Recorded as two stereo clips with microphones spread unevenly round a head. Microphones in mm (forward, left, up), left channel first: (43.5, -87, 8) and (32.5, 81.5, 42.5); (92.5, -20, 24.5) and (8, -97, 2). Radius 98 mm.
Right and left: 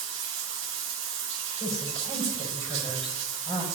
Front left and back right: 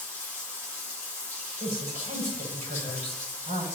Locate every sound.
0.0 s running water: 120° left, 1.1 m
1.6 s a woman speaking: 150° right, 5.5 m